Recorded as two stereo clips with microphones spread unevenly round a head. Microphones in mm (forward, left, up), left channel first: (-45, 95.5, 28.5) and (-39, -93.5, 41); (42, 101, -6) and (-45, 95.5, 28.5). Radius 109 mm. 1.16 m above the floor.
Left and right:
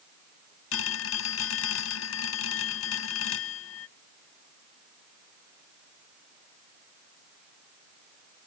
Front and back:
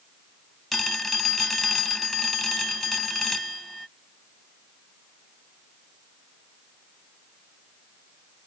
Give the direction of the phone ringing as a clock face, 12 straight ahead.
9 o'clock.